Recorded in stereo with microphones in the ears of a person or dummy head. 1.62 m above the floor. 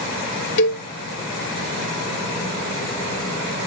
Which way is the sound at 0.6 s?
65° left (ahead or behind).